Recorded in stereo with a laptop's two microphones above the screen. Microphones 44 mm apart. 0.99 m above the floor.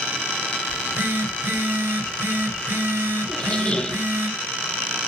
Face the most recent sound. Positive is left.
turn(degrees=25)  # may be behind; listen again after turning